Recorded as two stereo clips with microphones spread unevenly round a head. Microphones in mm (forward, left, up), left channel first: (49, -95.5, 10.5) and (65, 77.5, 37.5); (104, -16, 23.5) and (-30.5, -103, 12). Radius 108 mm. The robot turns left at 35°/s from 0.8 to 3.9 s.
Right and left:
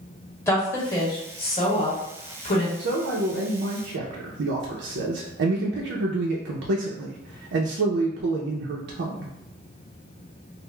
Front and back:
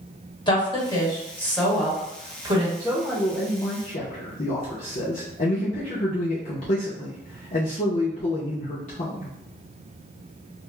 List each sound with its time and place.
0.5 s a woman speaking: 25° right, 1.7 m; by 2.7 s 95° right, 1.7 m
2.8 s a man speaking: 120° left, 0.5 m; by 9.3 s 80° left, 0.5 m